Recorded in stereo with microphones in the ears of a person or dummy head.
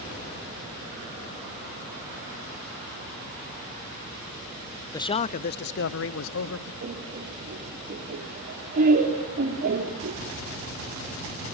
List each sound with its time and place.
4.9 s a man speaking: 10° left (ahead or behind), 0.7 m; by 6.7 s 75° left (ahead or behind), 1.5 m
6.8 s laughter: 55° right (ahead or behind), 4.5 m